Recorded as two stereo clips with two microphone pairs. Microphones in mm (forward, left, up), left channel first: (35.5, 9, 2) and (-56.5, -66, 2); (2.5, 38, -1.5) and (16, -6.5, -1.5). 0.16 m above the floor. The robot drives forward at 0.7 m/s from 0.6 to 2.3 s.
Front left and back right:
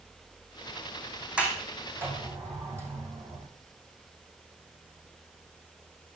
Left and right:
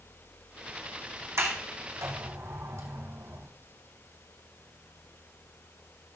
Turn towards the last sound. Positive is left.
turn(degrees=-75)